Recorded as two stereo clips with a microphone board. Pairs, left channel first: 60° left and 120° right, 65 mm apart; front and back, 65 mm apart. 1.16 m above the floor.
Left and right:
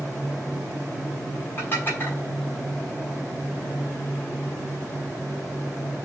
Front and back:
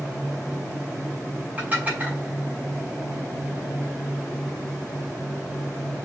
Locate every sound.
1.6 s dishes clattering: 115° left, 5.5 m